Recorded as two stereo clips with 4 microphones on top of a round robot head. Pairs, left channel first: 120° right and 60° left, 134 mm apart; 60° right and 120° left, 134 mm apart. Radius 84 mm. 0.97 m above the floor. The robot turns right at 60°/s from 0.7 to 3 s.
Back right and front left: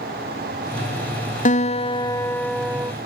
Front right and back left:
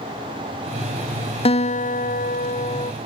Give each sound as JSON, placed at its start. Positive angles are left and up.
{"t": 1.4, "sound": "a guitar", "azimuth_deg": -100}